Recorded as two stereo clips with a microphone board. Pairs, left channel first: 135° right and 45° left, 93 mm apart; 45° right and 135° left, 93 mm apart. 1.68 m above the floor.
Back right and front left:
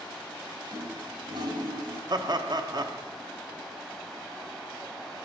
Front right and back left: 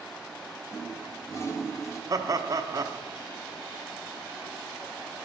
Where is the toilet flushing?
10° left, 1.7 m.